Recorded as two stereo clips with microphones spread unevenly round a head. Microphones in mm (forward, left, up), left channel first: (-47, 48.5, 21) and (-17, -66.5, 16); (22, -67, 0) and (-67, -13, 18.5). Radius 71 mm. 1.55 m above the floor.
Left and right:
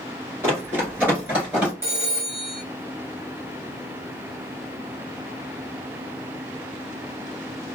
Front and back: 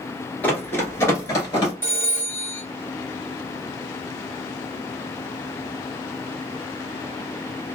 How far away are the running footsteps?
About 1.5 m.